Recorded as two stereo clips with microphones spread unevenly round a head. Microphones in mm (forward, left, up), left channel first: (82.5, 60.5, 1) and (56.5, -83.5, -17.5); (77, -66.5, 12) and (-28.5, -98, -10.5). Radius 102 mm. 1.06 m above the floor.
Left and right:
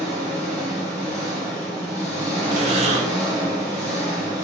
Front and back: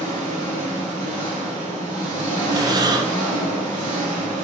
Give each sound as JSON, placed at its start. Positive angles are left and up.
{"t": 0.0, "sound": "an engine running", "azimuth_deg": -175, "distance_m": 2.0}
{"t": 2.5, "sound": "breathing", "azimuth_deg": -115, "distance_m": 0.7}